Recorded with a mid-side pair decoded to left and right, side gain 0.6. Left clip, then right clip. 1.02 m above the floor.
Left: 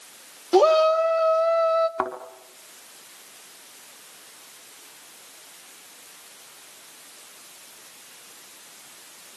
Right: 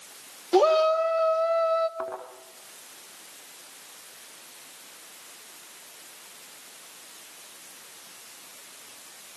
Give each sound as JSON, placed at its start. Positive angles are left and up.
{"t": 0.5, "sound": "a shout", "azimuth_deg": 20, "distance_m": 2.5}
{"t": 2.0, "sound": "a thud", "azimuth_deg": 65, "distance_m": 5.0}